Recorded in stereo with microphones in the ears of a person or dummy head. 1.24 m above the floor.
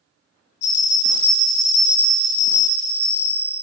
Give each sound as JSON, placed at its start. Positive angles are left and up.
{"t": 0.6, "sound": "a bell", "side_deg": 50, "distance_m": 0.7}